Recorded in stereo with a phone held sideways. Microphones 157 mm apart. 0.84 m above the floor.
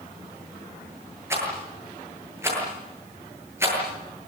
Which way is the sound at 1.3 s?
15° right (ahead or behind).